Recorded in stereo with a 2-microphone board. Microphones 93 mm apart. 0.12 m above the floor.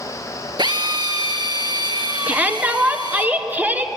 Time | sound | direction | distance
0.6 | a drill | 50° right (ahead or behind) | 2.0 m
2.3 | a shout | 20° right (ahead or behind) | 1.6 m